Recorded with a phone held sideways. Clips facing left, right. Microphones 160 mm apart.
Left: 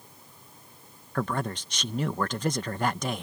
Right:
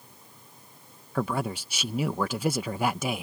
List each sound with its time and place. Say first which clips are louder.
1.1 s a man speaking: right 1 dB; 10° right (ahead or behind)